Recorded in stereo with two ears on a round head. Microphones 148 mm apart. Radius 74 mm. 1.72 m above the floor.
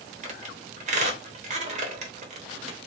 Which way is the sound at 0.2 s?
45° right (ahead or behind).